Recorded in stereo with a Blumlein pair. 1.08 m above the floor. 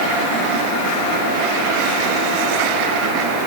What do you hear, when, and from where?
Only background noise.